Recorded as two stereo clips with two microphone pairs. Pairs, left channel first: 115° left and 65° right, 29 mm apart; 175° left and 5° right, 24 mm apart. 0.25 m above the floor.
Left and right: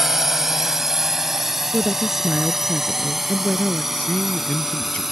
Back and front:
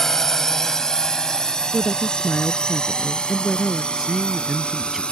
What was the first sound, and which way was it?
A drone, 130° right.